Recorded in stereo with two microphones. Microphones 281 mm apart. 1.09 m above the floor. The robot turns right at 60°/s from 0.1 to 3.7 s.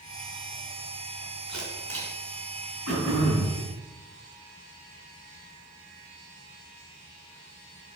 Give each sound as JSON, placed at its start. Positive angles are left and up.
{"t": 1.5, "sound": "a camera shutter", "side_deg": -80, "distance_m": 4.0}
{"t": 2.9, "sound": "throat clearing", "azimuth_deg": -65, "distance_m": 4.0}